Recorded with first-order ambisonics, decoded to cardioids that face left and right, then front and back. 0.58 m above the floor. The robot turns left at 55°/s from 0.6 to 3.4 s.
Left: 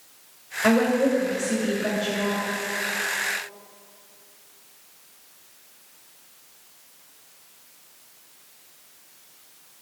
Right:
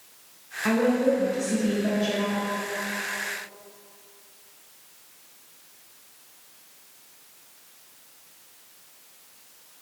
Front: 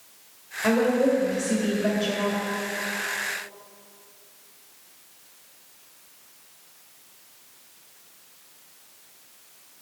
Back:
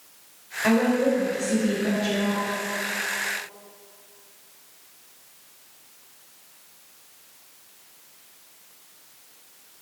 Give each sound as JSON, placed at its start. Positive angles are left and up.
{"t": 0.6, "sound": "a woman speaking", "azimuth_deg": 70, "distance_m": 1.8}